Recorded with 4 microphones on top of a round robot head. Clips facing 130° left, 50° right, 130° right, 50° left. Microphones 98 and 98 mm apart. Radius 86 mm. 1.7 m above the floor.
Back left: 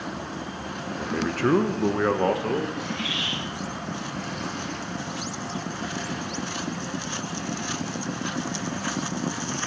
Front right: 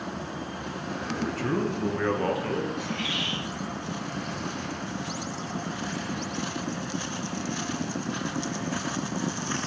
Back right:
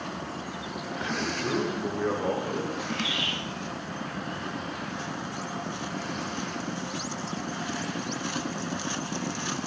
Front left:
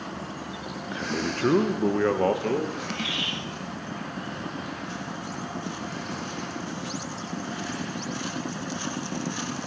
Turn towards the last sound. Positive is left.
turn(degrees=-5)